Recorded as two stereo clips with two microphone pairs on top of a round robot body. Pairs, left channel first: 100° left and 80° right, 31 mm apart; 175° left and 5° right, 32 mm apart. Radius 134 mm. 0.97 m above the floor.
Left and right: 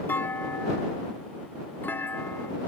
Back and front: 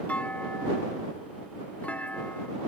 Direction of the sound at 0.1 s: 125° left.